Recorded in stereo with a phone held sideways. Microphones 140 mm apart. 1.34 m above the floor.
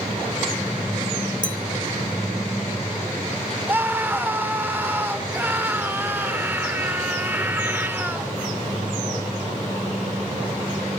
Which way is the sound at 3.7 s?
15° right (ahead or behind).